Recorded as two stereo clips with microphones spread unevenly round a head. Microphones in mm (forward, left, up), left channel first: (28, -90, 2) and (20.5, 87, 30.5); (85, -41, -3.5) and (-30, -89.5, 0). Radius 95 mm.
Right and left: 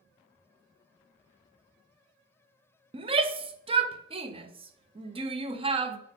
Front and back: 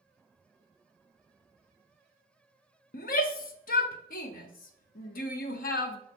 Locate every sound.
2.9 s a shout: 30° left, 0.7 m